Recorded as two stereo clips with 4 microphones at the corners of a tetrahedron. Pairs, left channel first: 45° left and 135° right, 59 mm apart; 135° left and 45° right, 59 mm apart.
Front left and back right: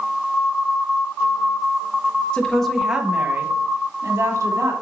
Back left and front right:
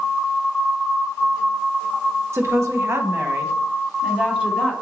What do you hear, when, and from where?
2.3 s a woman speaking: 20° right, 1.4 m; by 4.7 s 115° right, 2.5 m